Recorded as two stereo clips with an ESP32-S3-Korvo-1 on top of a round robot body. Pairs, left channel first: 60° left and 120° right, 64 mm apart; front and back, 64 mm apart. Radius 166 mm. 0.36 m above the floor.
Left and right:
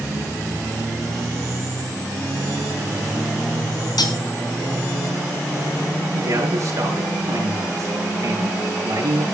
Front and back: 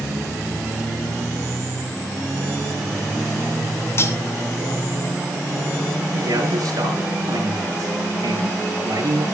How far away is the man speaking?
About 7.5 m.